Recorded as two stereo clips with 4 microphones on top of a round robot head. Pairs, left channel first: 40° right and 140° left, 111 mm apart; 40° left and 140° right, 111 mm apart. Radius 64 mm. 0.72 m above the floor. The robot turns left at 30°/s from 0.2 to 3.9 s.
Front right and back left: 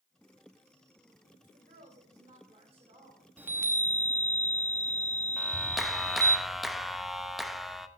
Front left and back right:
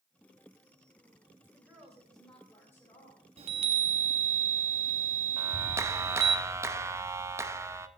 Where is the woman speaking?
150° left, 4 m; by 3.3 s 90° left, 4 m.